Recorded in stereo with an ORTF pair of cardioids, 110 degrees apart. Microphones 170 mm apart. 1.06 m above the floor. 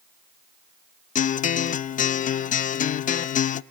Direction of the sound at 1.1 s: 45° left.